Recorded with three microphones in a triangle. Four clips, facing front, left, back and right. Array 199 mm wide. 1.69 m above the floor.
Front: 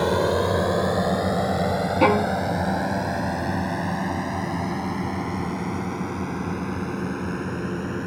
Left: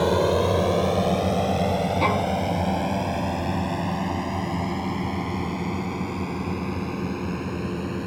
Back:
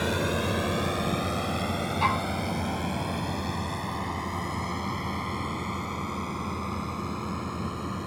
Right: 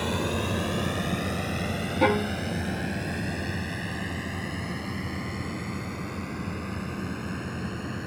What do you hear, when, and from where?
0.0 s a drone: 60° left; by 8.1 s 45° left
2.0 s a violin: 20° right